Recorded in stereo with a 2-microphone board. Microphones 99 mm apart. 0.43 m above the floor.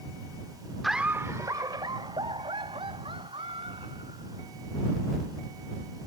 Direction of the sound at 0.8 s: Centre (ahead or behind).